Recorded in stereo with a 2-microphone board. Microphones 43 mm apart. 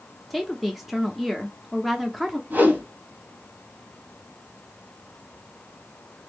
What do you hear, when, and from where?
0.3 s a woman speaking: centre (ahead or behind), 0.6 m
2.5 s a whoosh: 45° right (ahead or behind), 2.5 m